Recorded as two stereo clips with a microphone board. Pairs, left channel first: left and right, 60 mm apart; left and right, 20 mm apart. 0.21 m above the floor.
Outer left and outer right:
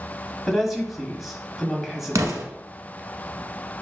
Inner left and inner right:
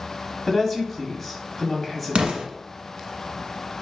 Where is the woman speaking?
Centre (ahead or behind), 1.0 m.